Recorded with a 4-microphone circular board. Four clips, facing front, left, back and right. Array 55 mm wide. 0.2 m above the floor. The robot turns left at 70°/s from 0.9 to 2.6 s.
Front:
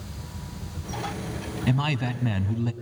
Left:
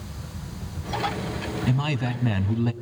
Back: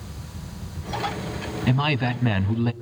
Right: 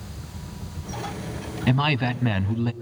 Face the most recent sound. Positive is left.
turn(degrees=-175)